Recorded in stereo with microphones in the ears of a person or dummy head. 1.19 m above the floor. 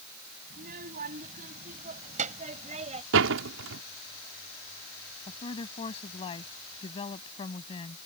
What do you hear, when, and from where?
0.5 s a child speaking: 55° right (ahead or behind); by 3.0 s 40° right (ahead or behind)
3.1 s a door slam: 80° right
5.3 s a woman speaking: 30° left (ahead or behind)